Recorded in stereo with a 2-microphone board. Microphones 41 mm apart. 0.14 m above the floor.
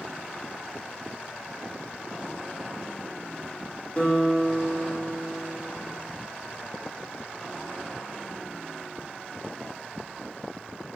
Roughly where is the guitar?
Left.